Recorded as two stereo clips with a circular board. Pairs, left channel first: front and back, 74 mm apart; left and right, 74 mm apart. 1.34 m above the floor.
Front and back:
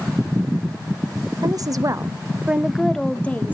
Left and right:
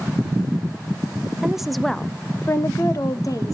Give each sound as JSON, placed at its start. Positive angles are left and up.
{"t": 1.4, "sound": "a woman speaking", "azimuth_deg": -170, "distance_m": 0.7}